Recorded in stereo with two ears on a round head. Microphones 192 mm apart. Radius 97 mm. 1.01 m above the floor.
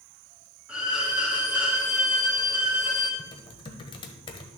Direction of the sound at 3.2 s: 25° left (ahead or behind).